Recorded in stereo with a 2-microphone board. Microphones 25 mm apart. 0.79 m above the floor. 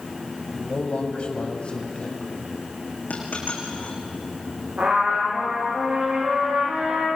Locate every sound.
0.5 s a man speaking: 55° left (ahead or behind), 3.5 m; by 2.4 s 35° left (ahead or behind), 4.5 m
3.1 s a dropped coin: 70° left (ahead or behind), 5.5 m
4.8 s a trumpet: 80° right, 10 m